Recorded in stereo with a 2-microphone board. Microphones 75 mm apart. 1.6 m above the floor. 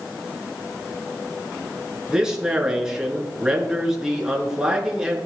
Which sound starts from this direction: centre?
A man speaking, at 2.1 s.